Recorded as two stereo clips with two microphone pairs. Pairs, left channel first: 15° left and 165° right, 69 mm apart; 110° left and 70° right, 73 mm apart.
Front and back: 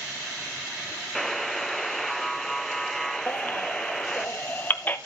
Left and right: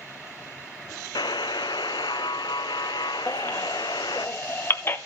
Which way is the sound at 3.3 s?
70° left.